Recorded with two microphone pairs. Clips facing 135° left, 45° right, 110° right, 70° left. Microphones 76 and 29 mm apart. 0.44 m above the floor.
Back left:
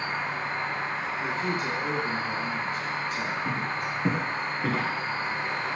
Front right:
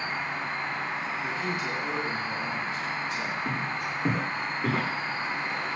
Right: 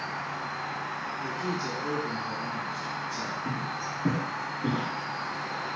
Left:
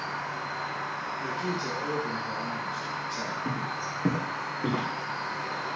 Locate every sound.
0.0 s an insect: 100° left, 1.4 m
1.2 s a man speaking: 90° left, 1.8 m
3.5 s footsteps: 50° left, 1.8 m; by 4.9 s 45° left, 2.5 m